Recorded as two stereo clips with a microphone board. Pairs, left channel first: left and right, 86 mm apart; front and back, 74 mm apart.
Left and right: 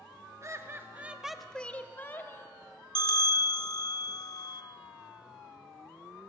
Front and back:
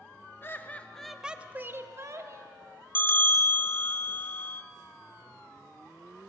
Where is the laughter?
50° right, 0.8 m; by 2.5 s 145° left, 1.2 m.